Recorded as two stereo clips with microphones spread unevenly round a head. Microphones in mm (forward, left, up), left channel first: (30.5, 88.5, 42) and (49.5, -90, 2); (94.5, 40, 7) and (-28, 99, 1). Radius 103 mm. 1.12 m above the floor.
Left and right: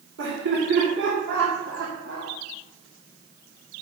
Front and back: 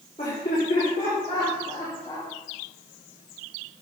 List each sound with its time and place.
0.2 s laughter: 90° right, 3.5 m; by 2.3 s 105° right, 2.5 m